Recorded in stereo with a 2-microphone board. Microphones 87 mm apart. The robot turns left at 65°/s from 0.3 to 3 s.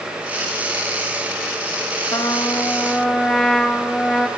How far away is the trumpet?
About 1.6 m.